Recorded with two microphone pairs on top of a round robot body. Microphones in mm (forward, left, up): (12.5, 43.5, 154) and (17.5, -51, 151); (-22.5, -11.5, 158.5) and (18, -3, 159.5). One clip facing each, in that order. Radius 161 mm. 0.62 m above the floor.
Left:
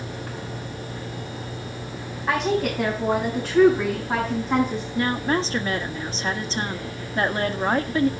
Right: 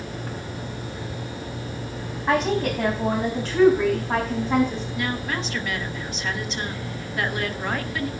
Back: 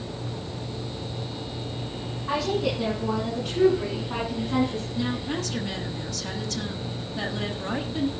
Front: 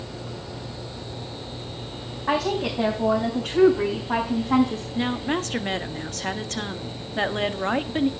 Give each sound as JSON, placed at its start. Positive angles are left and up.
{"t": 2.3, "sound": "a woman speaking", "azimuth_deg": -10, "distance_m": 4.5}
{"t": 5.0, "sound": "a woman speaking", "azimuth_deg": 40, "distance_m": 1.5}